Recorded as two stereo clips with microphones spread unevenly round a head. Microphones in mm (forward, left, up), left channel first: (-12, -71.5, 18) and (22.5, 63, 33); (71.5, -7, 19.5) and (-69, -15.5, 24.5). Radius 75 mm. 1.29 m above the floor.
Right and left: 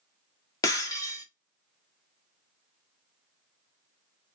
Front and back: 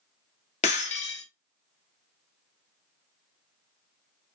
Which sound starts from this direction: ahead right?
Breaking glass, at 0.6 s.